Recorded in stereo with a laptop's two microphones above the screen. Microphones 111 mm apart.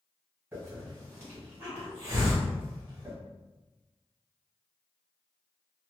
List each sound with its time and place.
0.5 s a hiss: 20° right (ahead or behind), 1.6 m